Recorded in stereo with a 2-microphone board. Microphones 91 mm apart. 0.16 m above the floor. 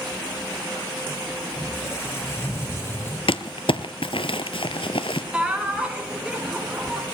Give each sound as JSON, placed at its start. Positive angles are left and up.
{"t": 1.6, "sound": "a squeak", "side_deg": 25, "distance_m": 4.5}
{"t": 3.3, "sound": "crumpling", "side_deg": 75, "distance_m": 0.9}
{"t": 5.3, "sound": "laughter", "side_deg": -10, "distance_m": 3.5}